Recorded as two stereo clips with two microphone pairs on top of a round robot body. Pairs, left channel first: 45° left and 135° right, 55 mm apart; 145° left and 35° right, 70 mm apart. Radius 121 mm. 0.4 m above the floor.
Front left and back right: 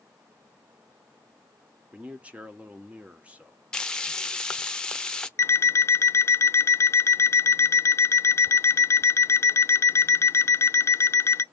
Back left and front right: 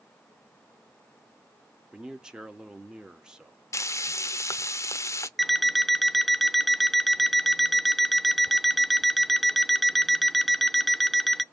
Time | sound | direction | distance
1.9 | a man speaking | 130° right | 0.9 m
3.7 | frying | 125° left | 0.6 m
5.4 | an alarm clock | 70° left | 0.5 m